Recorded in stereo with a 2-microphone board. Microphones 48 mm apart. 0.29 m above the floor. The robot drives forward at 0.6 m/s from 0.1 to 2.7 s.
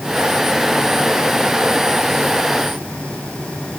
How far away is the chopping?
I don't hear chopping.